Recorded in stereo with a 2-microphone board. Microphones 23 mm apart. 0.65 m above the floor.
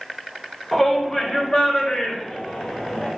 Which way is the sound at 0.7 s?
10° left (ahead or behind).